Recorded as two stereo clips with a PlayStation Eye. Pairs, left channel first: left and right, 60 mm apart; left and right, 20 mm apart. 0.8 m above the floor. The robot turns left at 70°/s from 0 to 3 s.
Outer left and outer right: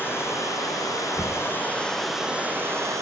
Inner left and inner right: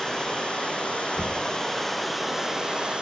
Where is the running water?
145° left, 7 m; by 3.0 s 65° right, 7 m.